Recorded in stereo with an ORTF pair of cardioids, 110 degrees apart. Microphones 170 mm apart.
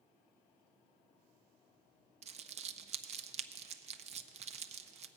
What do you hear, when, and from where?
2.2 s crumpling: 40° right, 0.6 m